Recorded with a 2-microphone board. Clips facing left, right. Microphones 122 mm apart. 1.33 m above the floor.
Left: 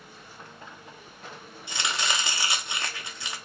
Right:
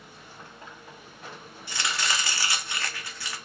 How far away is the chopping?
About 0.8 m.